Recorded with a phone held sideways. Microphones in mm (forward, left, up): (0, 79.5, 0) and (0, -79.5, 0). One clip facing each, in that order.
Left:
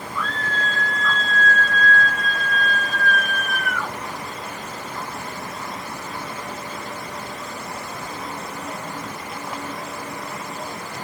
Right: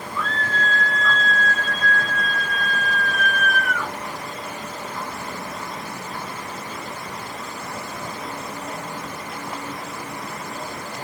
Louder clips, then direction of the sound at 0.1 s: Right 1 dB; 65° left (ahead or behind).